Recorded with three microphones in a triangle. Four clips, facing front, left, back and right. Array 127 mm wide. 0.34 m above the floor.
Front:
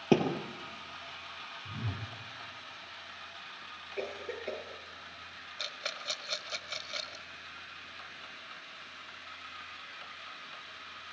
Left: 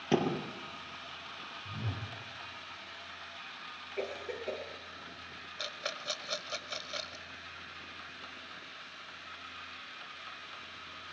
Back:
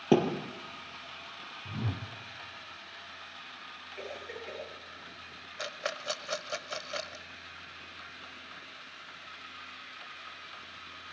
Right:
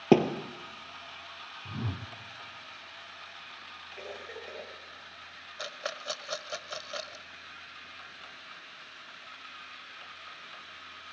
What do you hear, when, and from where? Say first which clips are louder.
0.1 s a thud: right 8 dB, back 2 dB; 95° right, 3 m
1.6 s a whoosh: right 5 dB, back 5 dB; 120° right, 1.8 m
4.0 s a cough: left 5 dB, front 4 dB; 35° left, 8 m
5.6 s a rattle: right 3 dB, back 6 dB; 150° right, 1.2 m